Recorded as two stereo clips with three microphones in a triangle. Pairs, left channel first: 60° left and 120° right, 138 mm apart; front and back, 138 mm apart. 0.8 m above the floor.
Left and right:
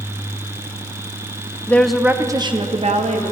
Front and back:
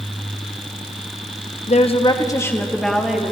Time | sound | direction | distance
1.7 | a woman speaking | 15° right | 0.8 m